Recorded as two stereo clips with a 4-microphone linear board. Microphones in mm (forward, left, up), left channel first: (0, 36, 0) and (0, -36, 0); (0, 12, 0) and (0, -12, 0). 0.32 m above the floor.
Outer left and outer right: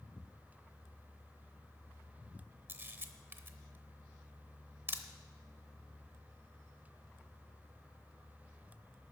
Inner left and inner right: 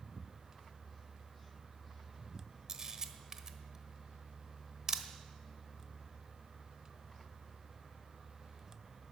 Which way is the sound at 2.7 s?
30° right (ahead or behind).